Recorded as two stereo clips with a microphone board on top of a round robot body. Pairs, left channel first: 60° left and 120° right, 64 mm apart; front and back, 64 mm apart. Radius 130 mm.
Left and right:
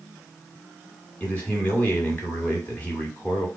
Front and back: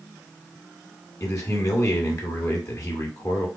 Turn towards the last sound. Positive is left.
turn(degrees=0)